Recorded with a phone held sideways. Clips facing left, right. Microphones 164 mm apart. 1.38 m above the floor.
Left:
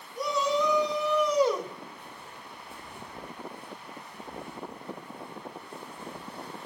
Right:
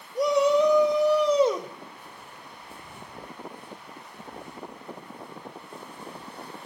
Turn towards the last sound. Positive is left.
turn(degrees=-20)  # may be behind; listen again after turning